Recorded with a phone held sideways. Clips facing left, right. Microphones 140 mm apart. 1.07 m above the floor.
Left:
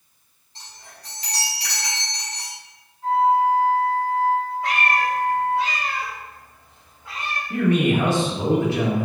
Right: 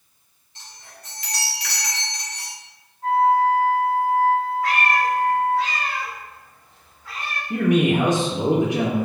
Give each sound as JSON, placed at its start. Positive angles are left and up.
{"t": 0.6, "sound": "a chime", "side_deg": 35, "distance_m": 1.1}
{"t": 3.0, "sound": "a flute", "side_deg": -50, "distance_m": 1.2}
{"t": 4.6, "sound": "a cat meowing", "side_deg": 25, "distance_m": 0.9}
{"t": 7.5, "sound": "a man speaking", "side_deg": -20, "distance_m": 0.5}